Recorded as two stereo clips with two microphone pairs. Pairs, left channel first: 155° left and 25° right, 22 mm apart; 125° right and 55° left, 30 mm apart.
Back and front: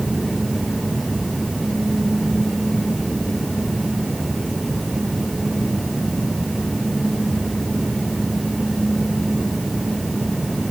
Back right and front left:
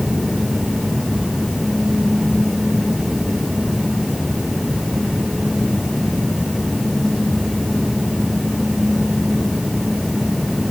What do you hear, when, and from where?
Only background noise.